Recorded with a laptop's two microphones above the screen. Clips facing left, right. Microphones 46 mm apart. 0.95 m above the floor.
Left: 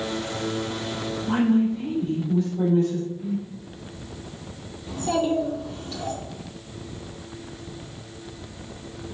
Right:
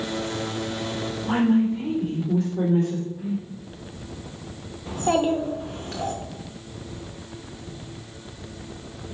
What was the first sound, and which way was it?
A woman speaking, 75° right (ahead or behind).